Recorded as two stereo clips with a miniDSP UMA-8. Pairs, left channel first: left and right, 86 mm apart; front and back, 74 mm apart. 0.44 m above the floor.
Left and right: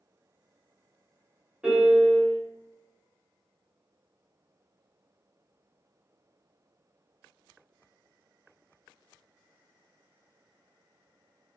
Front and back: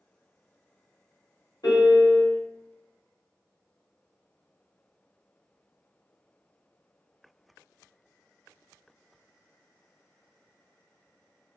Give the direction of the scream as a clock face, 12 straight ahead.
No scream in this recording.